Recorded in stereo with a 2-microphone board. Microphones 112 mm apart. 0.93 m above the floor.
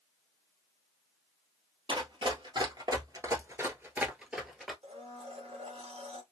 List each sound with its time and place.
1.9 s running footsteps: 50° right (ahead or behind), 1.3 m; by 4.7 s 5° left (ahead or behind), 1.1 m
4.8 s a blender: 70° right (ahead or behind), 0.8 m